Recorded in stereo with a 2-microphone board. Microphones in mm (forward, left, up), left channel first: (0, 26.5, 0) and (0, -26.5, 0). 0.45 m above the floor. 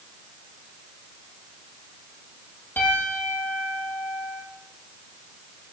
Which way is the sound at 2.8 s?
40° left (ahead or behind).